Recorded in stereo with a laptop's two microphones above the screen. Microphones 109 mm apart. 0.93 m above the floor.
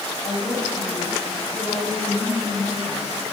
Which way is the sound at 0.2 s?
85° left.